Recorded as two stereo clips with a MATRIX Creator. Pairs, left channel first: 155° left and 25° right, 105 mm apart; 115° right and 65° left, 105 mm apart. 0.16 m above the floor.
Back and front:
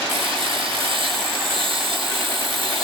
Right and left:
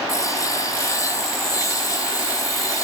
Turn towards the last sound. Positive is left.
turn(degrees=-55)